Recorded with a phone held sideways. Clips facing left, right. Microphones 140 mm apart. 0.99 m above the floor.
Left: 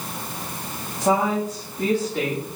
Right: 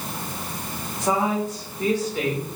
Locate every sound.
1.0 s a woman speaking: 65° left (ahead or behind), 2.5 m